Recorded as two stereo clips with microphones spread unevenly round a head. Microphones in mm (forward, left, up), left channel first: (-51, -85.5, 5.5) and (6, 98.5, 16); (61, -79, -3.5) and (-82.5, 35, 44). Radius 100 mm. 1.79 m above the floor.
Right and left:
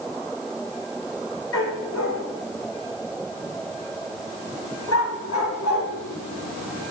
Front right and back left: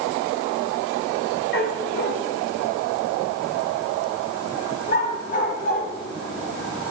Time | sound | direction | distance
1.5 | a dog barking | 75° right | 4 m